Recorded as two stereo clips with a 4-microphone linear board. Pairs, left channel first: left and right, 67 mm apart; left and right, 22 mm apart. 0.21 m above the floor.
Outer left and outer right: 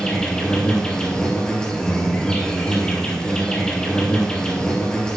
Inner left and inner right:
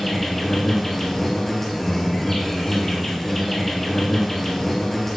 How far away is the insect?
About 1.7 m.